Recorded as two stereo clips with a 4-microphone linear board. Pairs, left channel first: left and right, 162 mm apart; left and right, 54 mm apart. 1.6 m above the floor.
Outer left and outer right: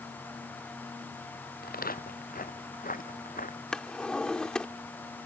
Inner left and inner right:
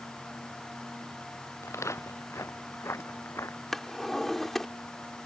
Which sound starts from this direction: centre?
A drawer, at 3.7 s.